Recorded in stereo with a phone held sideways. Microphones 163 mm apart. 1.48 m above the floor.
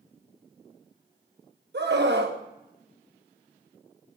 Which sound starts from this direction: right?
A scream, at 1.7 s.